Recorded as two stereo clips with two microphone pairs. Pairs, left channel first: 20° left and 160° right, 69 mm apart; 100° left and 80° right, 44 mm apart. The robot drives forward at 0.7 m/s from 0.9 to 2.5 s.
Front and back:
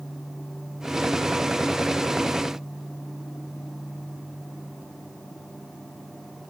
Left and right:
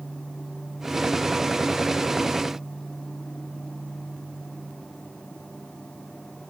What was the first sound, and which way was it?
Only background noise.